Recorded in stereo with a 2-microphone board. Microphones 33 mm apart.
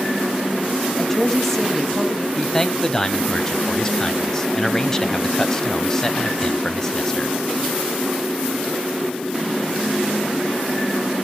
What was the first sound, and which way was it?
A woman speaking, 10° left (ahead or behind).